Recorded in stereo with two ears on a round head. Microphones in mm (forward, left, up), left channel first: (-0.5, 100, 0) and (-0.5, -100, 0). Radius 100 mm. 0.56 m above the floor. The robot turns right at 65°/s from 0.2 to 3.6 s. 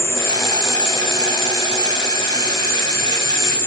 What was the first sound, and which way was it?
An insect, 150° left.